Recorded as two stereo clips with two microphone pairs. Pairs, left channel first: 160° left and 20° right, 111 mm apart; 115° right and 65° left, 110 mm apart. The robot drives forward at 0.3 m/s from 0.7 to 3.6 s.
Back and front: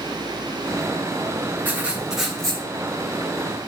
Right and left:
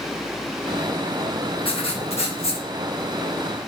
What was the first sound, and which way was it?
Writing, 95° right.